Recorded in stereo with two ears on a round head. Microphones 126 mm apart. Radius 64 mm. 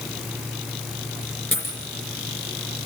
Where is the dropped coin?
15° left (ahead or behind), 3.5 m.